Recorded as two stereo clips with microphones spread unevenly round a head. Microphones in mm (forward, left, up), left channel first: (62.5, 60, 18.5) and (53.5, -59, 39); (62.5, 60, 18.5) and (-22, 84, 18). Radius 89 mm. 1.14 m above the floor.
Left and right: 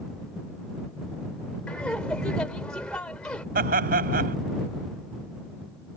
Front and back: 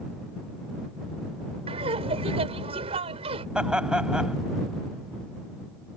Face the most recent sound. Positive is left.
turn(degrees=-110)